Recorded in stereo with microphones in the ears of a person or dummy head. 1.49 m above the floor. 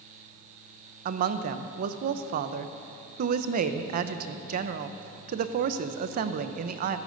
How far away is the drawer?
No drawer in this recording.